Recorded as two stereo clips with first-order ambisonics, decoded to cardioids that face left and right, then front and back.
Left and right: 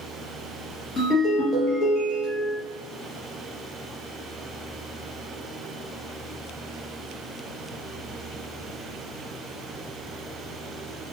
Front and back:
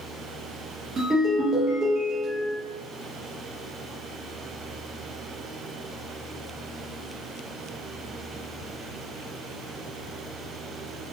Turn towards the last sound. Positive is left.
turn(degrees=135)